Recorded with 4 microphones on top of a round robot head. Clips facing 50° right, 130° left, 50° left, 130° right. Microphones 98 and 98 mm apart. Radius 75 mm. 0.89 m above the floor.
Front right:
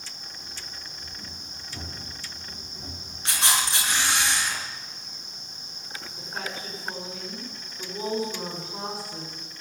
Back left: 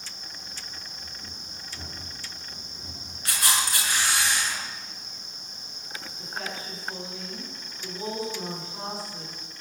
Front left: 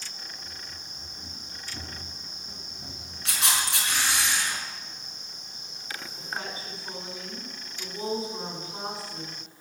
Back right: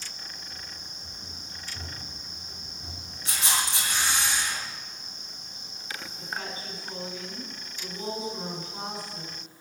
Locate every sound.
0.4 s running footsteps: 15° left, 9.5 m; by 4.2 s 5° right, 7.5 m
3.2 s a camera shutter: 15° left, 5.5 m
6.2 s a woman speaking: 15° right, 9 m